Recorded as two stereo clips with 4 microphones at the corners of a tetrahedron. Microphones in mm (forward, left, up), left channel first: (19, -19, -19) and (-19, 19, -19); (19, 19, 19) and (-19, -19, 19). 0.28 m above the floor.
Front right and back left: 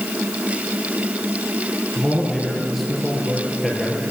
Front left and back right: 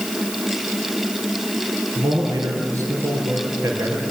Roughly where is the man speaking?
Behind right.